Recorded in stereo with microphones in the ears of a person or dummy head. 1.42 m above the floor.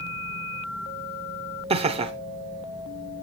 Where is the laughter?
30° right (ahead or behind), 0.8 m.